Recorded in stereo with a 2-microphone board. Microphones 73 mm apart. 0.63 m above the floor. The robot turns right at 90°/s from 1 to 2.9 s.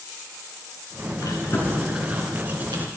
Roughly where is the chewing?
Left.